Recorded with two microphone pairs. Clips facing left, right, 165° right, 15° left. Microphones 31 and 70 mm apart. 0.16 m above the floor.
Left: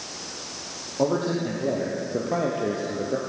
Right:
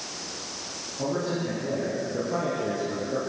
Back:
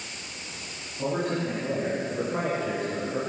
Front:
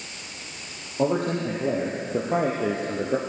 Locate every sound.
1.0 s a man speaking: 50° left, 5 m; by 3.2 s 25° left, 2.5 m